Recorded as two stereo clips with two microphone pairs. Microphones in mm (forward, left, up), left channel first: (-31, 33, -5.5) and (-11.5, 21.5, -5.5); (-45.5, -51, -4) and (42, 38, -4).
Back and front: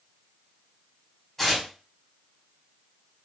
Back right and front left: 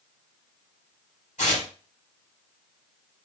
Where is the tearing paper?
135° right, 3.5 m.